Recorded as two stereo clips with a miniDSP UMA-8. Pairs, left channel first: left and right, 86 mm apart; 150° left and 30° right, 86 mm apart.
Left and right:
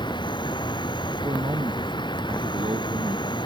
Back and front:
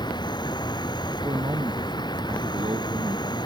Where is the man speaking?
65° right.